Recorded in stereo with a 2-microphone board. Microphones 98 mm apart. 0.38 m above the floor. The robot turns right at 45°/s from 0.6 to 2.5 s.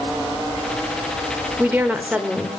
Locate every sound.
1.6 s a woman speaking: 20° right (ahead or behind), 0.9 m; by 2.6 s 10° right (ahead or behind), 0.9 m